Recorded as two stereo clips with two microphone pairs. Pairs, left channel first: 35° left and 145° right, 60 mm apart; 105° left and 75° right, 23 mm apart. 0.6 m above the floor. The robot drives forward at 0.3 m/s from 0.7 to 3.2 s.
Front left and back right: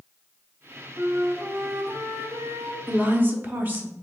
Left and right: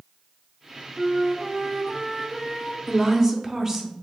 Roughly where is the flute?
Behind right.